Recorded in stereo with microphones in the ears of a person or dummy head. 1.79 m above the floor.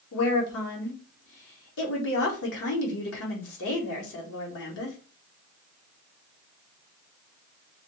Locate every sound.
0.1 s a woman speaking: 65° left (ahead or behind), 1.0 m